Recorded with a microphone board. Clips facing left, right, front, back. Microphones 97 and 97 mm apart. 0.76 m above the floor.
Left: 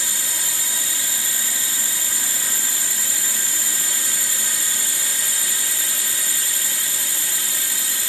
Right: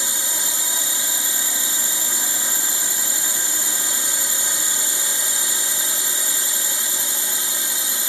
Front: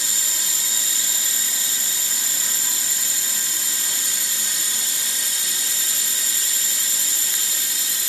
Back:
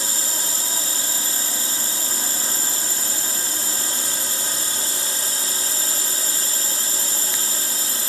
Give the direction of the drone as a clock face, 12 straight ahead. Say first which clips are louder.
Right 2 dB, back 4 dB; 5 o'clock.